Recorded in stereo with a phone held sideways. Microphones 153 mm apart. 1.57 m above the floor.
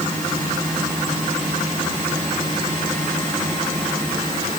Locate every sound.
Only background noise.